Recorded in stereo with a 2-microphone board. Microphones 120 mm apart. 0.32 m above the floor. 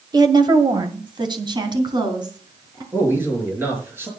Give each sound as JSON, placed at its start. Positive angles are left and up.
{"t": 0.1, "sound": "a woman speaking", "side_deg": -35, "distance_m": 1.4}
{"t": 2.9, "sound": "a man speaking", "side_deg": -20, "distance_m": 6.5}